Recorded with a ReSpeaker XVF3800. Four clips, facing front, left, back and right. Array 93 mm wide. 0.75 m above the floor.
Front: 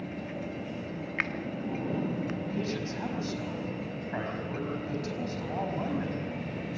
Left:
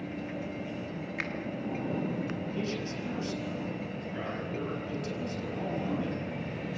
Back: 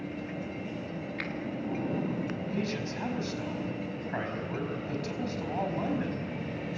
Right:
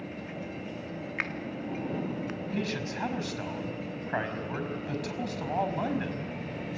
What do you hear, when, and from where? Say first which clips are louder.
1.2 s a finger snap: right 3 dB, front 7 dB; 30° right, 1.3 m
2.5 s a man speaking: right 1 dB, even; 85° right, 5 m